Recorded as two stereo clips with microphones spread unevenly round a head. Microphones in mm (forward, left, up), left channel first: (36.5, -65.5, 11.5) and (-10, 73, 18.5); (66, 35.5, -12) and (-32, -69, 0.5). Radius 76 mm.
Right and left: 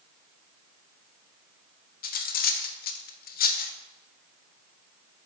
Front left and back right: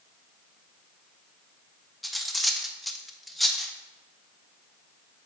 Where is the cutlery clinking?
45° right, 0.5 m.